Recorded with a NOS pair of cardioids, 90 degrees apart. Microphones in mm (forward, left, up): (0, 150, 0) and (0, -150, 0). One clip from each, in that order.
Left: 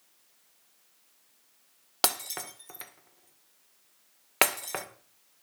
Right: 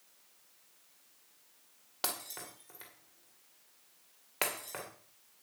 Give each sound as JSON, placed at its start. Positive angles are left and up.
{"t": 2.0, "sound": "breaking glass", "azimuth_deg": 60, "distance_m": 2.0}